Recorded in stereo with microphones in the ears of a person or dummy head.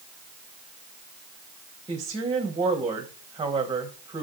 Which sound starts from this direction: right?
A woman speaking, at 1.9 s.